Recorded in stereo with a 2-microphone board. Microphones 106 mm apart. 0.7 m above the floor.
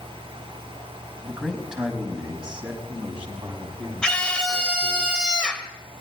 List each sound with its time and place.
1.2 s a man speaking: 5° right (ahead or behind), 4.5 m; by 5.0 s 15° right (ahead or behind), 6 m
4.0 s a scream: 10° left (ahead or behind), 2.5 m